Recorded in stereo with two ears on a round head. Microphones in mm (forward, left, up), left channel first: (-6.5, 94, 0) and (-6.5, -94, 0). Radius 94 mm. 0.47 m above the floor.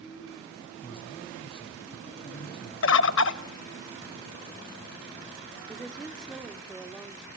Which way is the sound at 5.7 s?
5° right (ahead or behind).